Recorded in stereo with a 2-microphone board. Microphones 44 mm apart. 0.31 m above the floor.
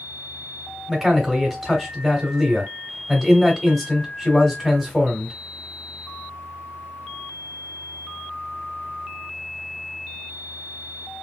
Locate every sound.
0.9 s a man speaking: centre (ahead or behind), 1.3 m